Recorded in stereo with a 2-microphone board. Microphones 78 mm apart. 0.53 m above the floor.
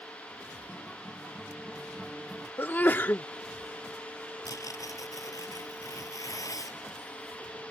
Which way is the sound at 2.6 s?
30° left (ahead or behind).